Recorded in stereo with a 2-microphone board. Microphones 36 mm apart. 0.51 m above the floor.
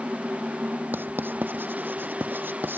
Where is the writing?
65° right (ahead or behind).